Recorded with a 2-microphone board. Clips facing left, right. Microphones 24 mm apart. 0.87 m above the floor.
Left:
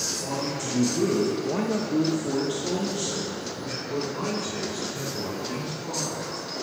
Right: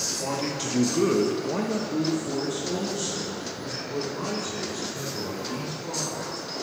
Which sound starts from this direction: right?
A man speaking, at 0.2 s.